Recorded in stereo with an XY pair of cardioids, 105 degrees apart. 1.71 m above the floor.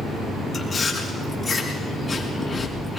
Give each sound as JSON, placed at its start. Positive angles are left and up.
{"t": 0.5, "sound": "chewing", "azimuth_deg": 25, "distance_m": 5.5}